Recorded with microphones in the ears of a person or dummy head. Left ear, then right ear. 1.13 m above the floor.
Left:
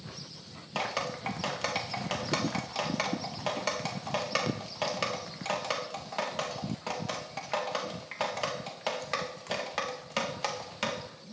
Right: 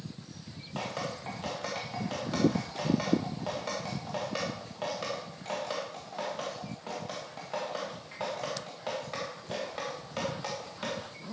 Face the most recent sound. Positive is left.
turn(degrees=50)  # may be behind; listen again after turning